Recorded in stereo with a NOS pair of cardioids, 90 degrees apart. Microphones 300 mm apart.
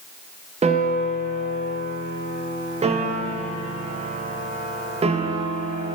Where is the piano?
20° right, 0.7 m.